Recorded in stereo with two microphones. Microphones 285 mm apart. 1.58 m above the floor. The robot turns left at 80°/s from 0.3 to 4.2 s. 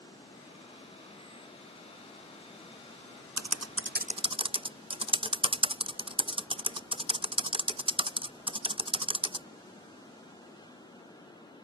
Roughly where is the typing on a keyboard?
Right.